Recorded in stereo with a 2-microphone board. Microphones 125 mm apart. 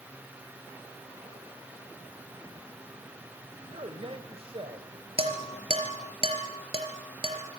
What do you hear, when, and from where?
3.7 s a man speaking: 50° right (ahead or behind), 2 m
5.2 s dishes clattering: 50° right (ahead or behind), 4.5 m